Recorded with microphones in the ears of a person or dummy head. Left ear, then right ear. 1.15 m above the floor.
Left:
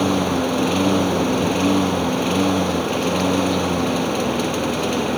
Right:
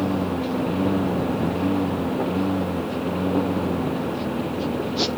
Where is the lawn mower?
75° left (ahead or behind).